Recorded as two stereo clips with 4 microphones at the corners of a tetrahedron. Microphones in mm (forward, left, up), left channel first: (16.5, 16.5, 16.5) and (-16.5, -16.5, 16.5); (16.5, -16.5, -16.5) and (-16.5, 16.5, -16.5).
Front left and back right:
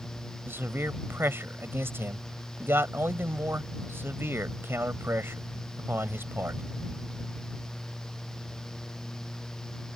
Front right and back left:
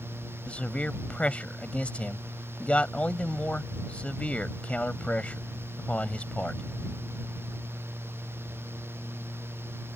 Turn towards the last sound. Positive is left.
turn(degrees=-105)